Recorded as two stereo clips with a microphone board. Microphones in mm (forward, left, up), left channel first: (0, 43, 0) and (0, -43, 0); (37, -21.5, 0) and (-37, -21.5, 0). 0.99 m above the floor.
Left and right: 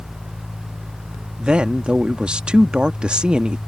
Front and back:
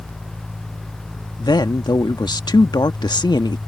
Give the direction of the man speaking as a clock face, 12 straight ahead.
12 o'clock.